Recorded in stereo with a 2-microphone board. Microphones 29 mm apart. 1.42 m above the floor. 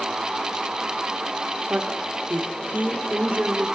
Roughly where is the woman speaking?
Right.